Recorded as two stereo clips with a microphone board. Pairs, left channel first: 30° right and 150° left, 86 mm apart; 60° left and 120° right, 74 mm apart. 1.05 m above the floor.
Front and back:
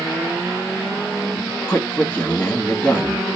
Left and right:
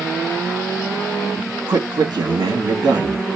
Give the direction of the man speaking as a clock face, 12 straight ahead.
3 o'clock.